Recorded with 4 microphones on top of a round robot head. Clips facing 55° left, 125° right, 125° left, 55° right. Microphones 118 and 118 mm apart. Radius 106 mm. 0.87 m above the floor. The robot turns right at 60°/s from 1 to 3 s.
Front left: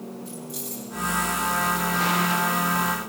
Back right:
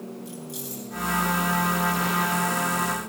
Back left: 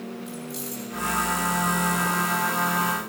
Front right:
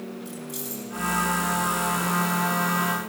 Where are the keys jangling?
55° right, 9 m.